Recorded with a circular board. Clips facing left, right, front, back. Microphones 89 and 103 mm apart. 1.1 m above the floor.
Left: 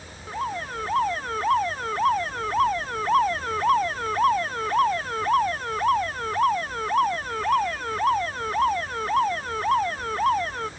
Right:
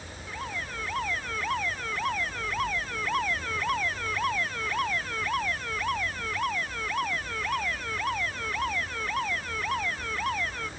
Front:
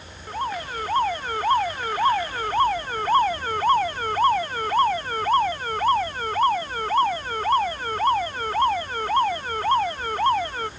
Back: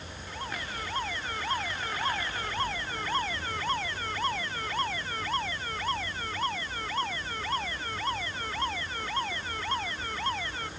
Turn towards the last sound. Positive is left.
turn(degrees=40)